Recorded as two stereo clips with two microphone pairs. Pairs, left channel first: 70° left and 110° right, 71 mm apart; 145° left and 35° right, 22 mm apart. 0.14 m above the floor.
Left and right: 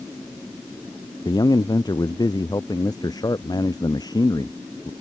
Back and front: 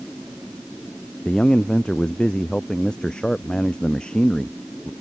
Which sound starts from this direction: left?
A man speaking, at 1.2 s.